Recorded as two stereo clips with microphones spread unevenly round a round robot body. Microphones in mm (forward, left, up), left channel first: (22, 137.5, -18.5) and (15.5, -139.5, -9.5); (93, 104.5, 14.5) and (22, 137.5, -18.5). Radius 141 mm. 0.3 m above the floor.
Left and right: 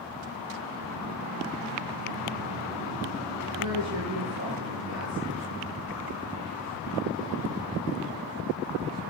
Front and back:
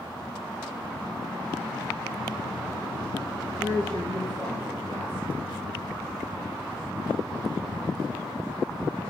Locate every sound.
3.6 s a woman speaking: 125° right, 3.5 m